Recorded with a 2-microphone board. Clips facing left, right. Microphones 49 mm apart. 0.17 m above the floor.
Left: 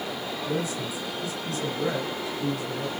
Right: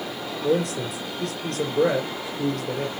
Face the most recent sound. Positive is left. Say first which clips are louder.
# right 8 dB
turn(degrees=-65)  # may be behind; listen again after turning